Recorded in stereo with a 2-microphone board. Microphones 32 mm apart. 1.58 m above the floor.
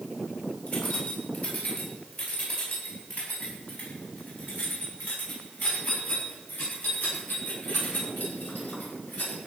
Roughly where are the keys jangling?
Left.